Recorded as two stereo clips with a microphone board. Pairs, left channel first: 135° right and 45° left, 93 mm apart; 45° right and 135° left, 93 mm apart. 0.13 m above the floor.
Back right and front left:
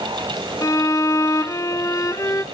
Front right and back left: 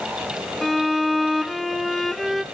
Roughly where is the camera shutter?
No camera shutter in this recording.